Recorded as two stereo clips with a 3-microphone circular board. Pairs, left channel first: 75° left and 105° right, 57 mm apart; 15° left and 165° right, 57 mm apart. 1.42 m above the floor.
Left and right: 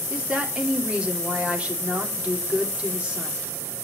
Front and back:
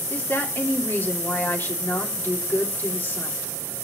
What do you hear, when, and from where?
0.1 s a woman speaking: 35° right, 3 m